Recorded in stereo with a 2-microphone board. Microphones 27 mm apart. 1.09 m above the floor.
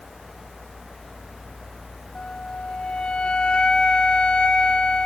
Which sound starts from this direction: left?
A flute, at 2.1 s.